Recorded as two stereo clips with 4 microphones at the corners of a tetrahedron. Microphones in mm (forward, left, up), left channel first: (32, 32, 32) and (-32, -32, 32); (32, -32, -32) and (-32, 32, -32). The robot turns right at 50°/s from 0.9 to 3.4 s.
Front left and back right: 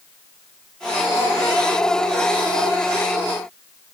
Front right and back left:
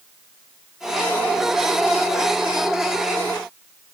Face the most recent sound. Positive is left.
No sound to turn to.